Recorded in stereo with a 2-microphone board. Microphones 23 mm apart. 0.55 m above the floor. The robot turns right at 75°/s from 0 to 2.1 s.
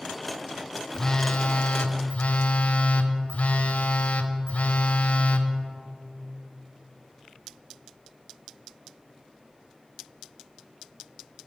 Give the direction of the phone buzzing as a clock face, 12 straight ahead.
11 o'clock.